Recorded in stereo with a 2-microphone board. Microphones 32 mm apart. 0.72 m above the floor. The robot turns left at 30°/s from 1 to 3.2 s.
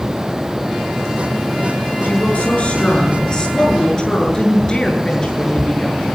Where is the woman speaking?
60° left, 9 m; by 6.0 s 25° left, 9 m.